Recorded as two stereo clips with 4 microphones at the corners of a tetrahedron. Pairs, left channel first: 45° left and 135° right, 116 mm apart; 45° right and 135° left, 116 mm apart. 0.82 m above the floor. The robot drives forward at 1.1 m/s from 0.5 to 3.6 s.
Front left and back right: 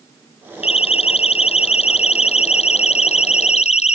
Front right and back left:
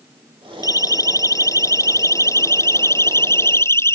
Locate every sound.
0.6 s a siren: 15° left; by 4.0 s 25° left